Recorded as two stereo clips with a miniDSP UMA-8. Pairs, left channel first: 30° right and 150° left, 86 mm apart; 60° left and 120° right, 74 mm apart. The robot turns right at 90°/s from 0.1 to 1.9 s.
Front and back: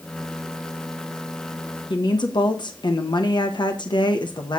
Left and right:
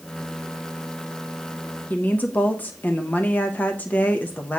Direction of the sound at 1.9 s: 5° right.